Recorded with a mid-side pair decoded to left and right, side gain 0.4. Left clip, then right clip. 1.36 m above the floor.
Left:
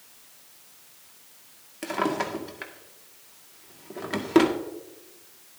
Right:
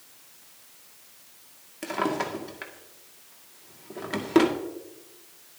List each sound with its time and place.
1.8 s a drawer: 10° left, 1.8 m